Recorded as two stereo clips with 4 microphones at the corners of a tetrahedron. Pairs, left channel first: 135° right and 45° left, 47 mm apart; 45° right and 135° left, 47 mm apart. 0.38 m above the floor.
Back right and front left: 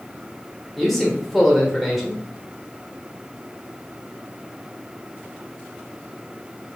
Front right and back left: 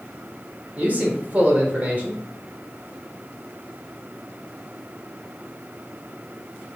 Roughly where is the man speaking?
Behind left.